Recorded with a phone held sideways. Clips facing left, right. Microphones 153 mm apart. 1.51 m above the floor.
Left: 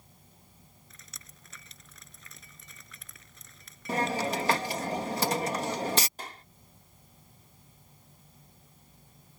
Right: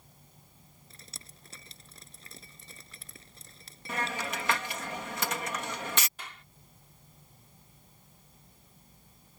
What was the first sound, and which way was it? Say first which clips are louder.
Dripping: right 5 dB; 30° right (ahead or behind).